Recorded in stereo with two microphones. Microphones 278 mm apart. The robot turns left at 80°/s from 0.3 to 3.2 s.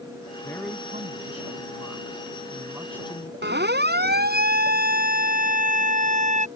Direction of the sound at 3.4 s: 40° right (ahead or behind).